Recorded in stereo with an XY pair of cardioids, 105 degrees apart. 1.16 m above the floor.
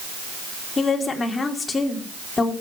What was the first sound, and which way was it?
A woman speaking, 30° left.